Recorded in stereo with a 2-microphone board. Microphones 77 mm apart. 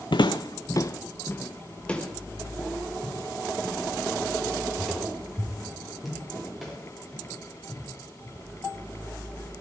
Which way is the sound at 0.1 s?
75° left (ahead or behind).